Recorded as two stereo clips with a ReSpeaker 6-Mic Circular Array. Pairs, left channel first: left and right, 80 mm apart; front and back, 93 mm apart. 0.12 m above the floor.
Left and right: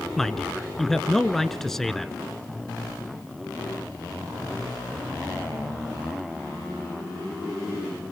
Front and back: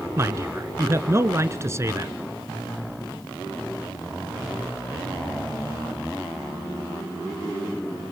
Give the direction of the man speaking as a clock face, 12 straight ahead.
6 o'clock.